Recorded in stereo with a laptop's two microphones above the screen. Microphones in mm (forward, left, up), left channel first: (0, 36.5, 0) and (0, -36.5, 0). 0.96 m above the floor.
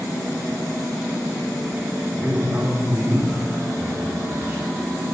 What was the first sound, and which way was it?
A man speaking, 25° right (ahead or behind).